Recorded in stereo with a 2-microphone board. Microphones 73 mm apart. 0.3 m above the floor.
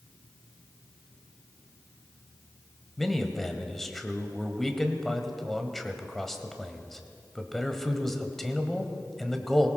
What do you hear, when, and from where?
3.0 s a man speaking: 5° left (ahead or behind), 1.3 m